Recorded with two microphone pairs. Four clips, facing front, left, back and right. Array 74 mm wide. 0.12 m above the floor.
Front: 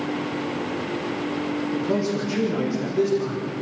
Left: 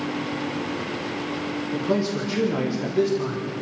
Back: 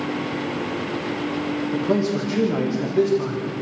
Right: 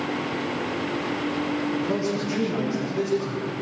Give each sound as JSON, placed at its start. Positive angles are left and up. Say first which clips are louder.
{"t": 1.7, "sound": "a man speaking", "louder": "left 1 dB, back 4 dB", "azimuth_deg": 165, "distance_m": 6.0}